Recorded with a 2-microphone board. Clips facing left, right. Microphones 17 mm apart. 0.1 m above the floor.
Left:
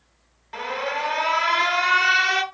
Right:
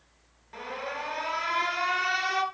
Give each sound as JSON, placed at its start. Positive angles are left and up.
{"t": 0.5, "sound": "an alarm", "side_deg": 35, "distance_m": 0.9}